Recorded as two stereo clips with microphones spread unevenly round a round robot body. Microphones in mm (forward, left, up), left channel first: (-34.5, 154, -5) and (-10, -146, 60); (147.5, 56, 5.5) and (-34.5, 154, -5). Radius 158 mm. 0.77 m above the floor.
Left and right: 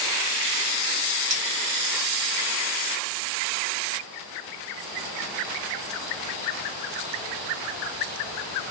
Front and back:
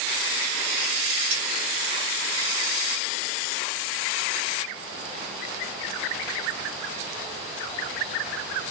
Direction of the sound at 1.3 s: 155° right.